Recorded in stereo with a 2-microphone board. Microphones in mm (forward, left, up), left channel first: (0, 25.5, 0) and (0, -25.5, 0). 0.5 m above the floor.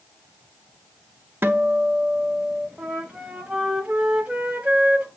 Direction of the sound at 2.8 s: 25° right (ahead or behind).